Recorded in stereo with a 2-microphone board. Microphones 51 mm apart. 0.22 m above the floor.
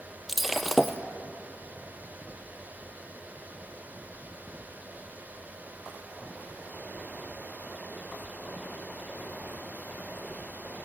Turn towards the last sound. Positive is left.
turn(degrees=0)  # may be behind; listen again after turning